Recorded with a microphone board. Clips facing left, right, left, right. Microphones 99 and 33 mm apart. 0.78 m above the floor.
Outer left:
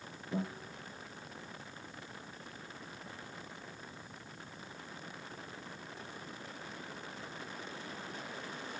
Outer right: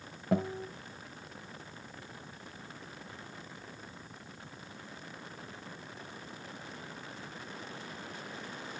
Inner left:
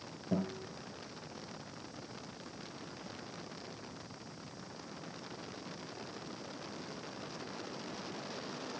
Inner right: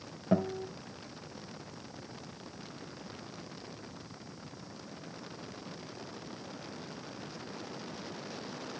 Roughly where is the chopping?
I don't hear chopping.